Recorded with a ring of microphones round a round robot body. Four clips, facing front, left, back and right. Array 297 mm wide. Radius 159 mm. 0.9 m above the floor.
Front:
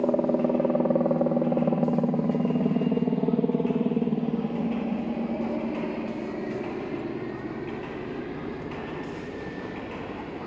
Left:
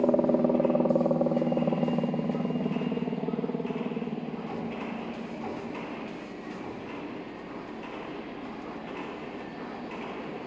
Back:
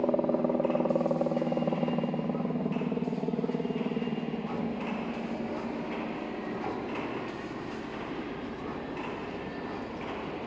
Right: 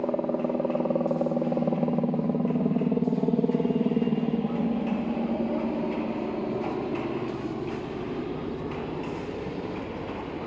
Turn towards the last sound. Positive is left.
turn(degrees=-65)